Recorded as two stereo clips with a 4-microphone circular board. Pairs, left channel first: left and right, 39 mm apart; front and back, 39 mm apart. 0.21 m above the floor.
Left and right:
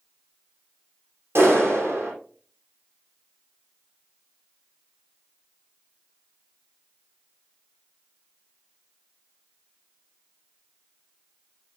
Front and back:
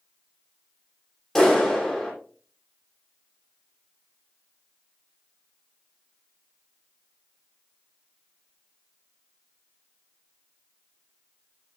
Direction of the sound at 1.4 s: 80° right.